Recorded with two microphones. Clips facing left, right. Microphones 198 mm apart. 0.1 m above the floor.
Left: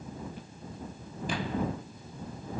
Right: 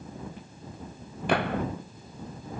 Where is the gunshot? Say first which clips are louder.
Right 5 dB; 65° right (ahead or behind).